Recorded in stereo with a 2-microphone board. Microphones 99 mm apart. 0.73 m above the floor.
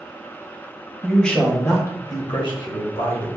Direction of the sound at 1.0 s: Centre (ahead or behind).